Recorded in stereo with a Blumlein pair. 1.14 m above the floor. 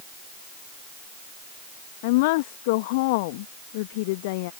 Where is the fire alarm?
No fire alarm in this recording.